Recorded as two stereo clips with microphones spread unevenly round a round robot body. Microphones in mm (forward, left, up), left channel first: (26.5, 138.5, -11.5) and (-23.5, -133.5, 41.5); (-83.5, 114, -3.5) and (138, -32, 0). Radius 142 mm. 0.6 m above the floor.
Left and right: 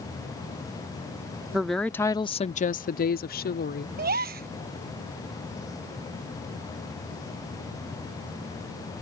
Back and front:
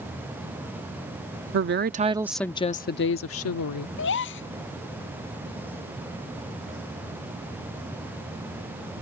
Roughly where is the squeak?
I don't hear a squeak.